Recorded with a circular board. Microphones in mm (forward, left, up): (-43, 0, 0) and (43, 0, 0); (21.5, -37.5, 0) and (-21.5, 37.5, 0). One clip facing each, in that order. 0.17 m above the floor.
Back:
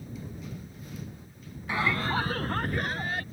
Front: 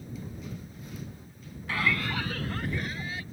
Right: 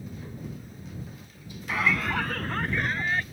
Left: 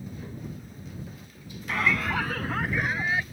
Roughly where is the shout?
Behind right.